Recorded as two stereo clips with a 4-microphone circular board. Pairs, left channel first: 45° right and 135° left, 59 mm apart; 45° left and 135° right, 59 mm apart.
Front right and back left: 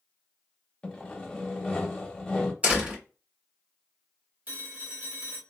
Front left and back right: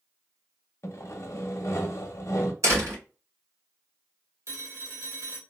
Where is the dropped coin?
No dropped coin in this recording.